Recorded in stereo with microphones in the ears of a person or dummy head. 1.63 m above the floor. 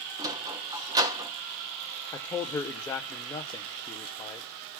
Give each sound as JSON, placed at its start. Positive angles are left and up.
{"t": 0.2, "sound": "a sliding door", "side_deg": -15, "distance_m": 0.8}
{"t": 2.1, "sound": "a man speaking", "side_deg": 20, "distance_m": 0.6}